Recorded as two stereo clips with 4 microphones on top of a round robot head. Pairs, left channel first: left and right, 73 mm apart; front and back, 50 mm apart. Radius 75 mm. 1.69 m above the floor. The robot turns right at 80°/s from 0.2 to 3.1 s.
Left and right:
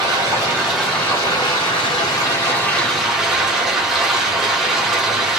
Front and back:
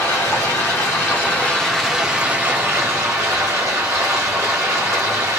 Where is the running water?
50° right, 1.0 m; by 5.4 s 175° right, 1.0 m.